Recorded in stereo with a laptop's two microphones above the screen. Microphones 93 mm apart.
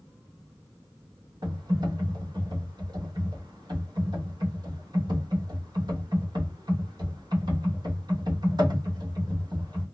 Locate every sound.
1.4 s typing on a keyboard: 50° right (ahead or behind), 1.1 m